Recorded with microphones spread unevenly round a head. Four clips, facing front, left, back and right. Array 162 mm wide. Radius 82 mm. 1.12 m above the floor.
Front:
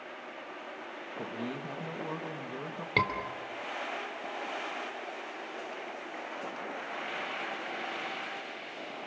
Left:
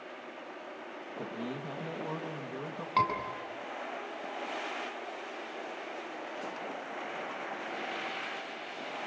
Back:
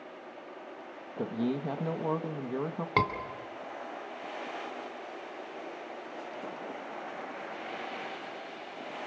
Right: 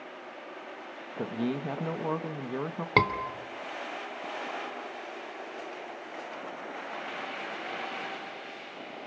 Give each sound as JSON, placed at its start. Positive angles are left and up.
{"t": 1.2, "sound": "a man speaking", "azimuth_deg": -150, "distance_m": 1.8}
{"t": 3.0, "sound": "a scream", "azimuth_deg": -90, "distance_m": 3.0}